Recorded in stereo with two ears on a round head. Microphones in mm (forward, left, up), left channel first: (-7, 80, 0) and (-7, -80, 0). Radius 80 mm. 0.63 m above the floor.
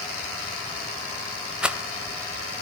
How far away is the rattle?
About 1.0 m.